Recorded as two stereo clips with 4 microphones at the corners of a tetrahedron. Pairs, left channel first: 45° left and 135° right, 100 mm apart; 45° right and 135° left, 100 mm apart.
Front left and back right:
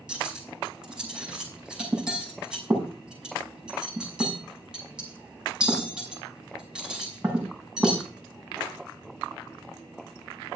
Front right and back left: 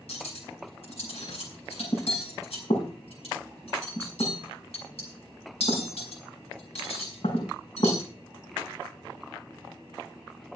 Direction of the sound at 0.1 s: 55° right.